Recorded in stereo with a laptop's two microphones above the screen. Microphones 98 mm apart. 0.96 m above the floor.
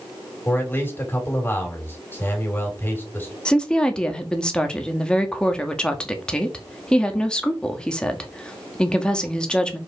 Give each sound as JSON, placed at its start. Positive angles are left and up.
{"t": 0.5, "sound": "a man speaking", "side_deg": 20, "distance_m": 3.0}
{"t": 3.5, "sound": "a woman speaking", "side_deg": 10, "distance_m": 1.5}